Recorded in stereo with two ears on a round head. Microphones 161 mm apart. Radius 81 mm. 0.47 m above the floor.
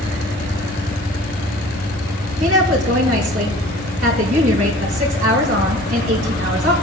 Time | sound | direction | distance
2.4 | a woman speaking | 45° right (ahead or behind) | 4.5 m